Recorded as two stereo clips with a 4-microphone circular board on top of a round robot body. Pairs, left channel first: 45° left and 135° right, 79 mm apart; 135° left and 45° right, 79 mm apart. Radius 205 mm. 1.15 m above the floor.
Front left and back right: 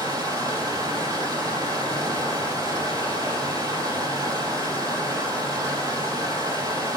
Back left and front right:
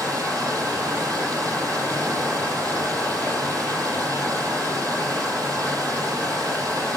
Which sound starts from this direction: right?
Running water, at 0.0 s.